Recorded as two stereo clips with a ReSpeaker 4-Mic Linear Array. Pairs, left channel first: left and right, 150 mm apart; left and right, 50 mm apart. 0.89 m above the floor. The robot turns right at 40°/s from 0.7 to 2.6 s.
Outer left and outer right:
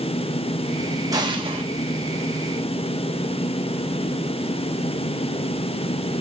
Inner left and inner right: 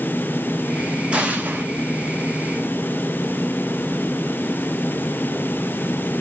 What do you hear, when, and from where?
1.1 s an explosion: 25° right (ahead or behind), 0.8 m; by 1.6 s 45° right (ahead or behind), 0.8 m